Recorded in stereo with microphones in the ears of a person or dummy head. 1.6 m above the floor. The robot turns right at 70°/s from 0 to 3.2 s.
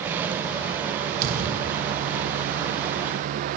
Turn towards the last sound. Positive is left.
turn(degrees=65)